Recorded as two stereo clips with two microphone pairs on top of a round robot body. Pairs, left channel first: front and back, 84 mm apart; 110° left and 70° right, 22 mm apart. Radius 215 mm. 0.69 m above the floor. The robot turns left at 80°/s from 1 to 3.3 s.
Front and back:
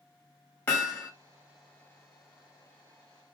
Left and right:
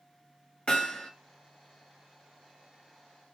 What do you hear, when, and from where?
0.7 s hammering: 65° left, 1.3 m; by 1.1 s 55° left, 1.3 m